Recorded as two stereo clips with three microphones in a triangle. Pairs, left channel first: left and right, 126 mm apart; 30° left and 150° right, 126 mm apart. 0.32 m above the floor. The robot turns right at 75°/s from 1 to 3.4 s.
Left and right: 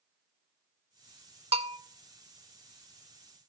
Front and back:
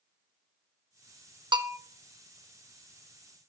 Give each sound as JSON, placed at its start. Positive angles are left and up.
{"t": 1.5, "sound": "a bell", "azimuth_deg": -105, "distance_m": 0.6}